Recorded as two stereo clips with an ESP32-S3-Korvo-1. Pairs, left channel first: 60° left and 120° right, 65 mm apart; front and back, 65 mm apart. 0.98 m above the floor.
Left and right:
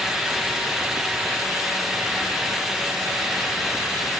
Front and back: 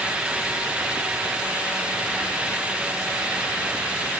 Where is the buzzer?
No buzzer in this recording.